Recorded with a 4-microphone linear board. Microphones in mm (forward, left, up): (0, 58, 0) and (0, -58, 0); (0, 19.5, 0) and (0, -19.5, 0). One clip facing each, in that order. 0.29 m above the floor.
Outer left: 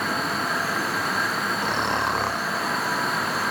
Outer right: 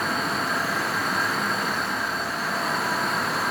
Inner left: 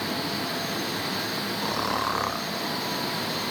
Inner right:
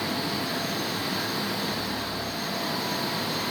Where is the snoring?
70° left (ahead or behind).